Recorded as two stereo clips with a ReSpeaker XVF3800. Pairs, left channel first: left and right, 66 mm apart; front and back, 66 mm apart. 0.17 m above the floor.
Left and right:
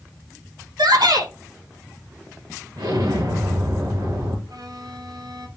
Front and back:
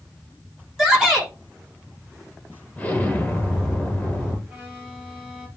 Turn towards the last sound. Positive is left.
turn(degrees=-105)